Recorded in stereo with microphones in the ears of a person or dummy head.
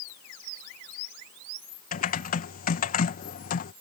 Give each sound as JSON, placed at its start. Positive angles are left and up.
{"t": 1.9, "sound": "typing on a keyboard", "side_deg": 45}